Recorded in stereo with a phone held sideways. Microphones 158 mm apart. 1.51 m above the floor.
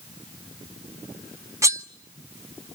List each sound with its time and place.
1.6 s cutlery clinking: 20° right (ahead or behind), 0.7 m